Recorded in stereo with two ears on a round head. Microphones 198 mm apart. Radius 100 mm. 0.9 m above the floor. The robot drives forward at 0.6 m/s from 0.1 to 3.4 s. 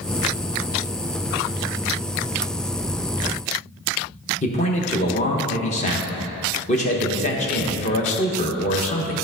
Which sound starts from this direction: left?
A man speaking, at 4.4 s.